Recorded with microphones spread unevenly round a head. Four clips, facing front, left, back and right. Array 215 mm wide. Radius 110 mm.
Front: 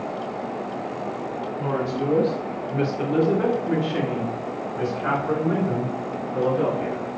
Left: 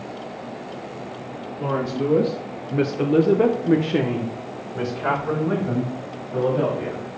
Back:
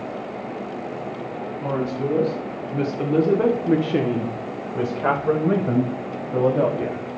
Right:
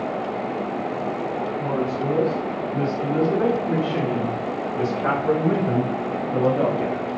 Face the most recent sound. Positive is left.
turn(degrees=-165)